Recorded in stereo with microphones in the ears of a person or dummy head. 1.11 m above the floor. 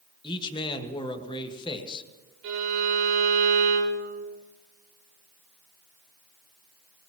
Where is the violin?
80° right, 4 m.